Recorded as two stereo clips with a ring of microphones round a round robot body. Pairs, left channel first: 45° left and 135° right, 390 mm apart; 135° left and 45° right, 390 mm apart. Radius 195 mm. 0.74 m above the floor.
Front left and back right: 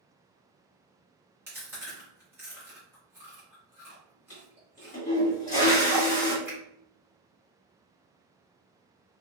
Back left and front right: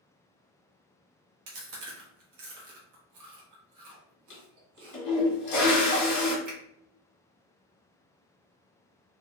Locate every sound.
1.5 s chewing: 55° right, 0.9 m
4.3 s a toilet flushing: 110° left, 1.4 m
6.5 s a finger snap: 55° right, 1.6 m